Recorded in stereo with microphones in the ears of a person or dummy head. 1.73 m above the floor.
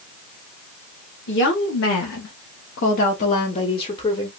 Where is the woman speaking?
45° left (ahead or behind), 1.1 m; by 4.3 s 20° left (ahead or behind), 1.1 m.